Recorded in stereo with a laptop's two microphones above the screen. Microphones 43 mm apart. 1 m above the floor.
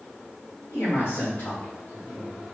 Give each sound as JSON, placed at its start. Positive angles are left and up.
{"t": 0.7, "sound": "a man speaking", "side_deg": 65, "distance_m": 1.6}